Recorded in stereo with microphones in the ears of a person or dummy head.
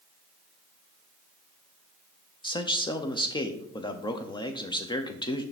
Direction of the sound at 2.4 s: 25° left (ahead or behind).